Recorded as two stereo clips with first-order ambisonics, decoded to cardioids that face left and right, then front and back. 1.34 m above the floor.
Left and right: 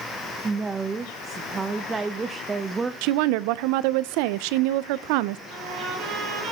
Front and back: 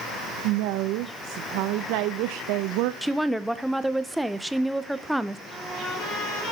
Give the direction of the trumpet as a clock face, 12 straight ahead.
1 o'clock.